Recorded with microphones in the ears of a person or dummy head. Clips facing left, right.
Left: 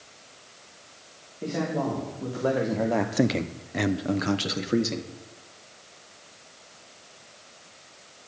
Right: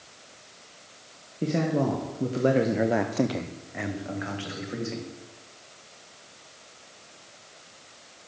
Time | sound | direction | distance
1.4 | a man speaking | 35° right (ahead or behind) | 1.7 m